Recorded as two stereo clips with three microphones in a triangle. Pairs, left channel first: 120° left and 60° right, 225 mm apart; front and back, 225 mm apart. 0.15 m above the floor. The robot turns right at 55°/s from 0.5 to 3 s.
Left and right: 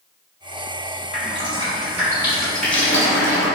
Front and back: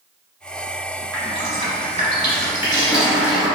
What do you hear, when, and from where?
1.1 s dripping: 45° right, 1.2 m; by 3.5 s 60° left, 1.2 m